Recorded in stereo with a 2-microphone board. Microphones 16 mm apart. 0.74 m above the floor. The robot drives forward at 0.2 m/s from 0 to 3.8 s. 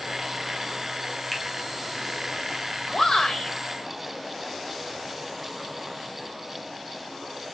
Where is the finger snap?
Centre (ahead or behind), 3 m.